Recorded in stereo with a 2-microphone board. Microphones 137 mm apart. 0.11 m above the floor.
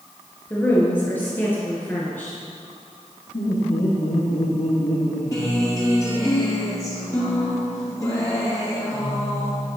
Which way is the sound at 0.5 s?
15° left (ahead or behind).